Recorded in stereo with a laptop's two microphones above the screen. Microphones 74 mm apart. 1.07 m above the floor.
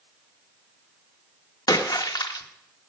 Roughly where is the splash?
Left.